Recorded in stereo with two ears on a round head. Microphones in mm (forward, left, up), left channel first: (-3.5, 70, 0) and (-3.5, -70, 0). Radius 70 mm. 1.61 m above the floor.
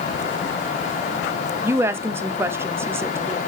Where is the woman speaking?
15° right (ahead or behind), 0.6 m.